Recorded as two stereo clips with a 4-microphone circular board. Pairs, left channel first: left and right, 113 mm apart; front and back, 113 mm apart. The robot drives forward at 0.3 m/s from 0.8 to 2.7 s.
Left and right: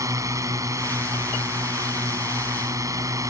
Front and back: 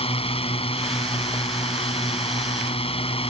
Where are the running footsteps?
I don't hear running footsteps.